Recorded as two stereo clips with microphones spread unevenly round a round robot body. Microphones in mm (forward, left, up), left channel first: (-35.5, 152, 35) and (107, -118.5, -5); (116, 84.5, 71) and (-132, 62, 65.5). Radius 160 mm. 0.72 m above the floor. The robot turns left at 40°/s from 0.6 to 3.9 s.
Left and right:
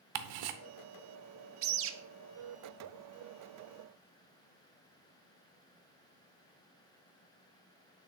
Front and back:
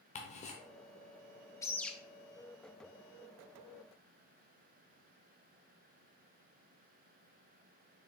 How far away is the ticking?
About 0.6 m.